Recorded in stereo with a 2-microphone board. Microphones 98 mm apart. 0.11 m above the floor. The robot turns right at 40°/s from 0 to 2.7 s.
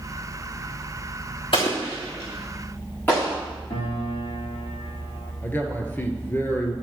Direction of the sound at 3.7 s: 70° left (ahead or behind).